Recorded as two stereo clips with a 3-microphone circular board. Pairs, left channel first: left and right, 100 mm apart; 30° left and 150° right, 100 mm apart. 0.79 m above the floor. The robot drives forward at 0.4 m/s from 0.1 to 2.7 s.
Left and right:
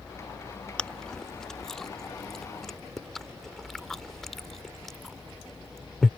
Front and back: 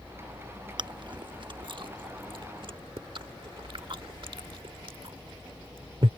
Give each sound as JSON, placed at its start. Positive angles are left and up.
{"t": 0.8, "sound": "chewing", "azimuth_deg": 170}